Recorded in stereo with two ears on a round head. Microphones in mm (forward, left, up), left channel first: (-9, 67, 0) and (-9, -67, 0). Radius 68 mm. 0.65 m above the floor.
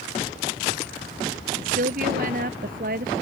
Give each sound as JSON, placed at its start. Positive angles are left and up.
{"t": 1.6, "sound": "a woman speaking", "side_deg": -55}